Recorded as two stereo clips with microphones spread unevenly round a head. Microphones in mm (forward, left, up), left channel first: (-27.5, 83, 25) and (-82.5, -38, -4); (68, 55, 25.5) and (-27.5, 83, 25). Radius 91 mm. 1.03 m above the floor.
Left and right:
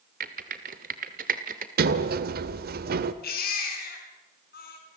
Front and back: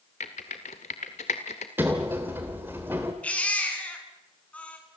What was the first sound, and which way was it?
Typing on a keyboard, 65° right.